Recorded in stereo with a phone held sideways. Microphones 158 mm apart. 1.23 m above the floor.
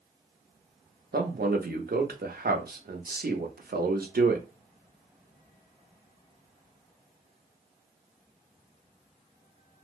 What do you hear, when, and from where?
1.1 s a man speaking: 75° right (ahead or behind), 0.8 m